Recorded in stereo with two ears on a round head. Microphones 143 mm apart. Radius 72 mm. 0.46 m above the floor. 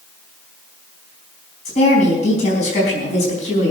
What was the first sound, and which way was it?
A woman speaking, 50° left (ahead or behind).